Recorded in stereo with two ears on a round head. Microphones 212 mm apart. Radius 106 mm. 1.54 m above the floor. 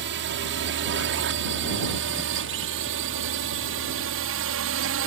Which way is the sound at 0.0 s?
50° right (ahead or behind).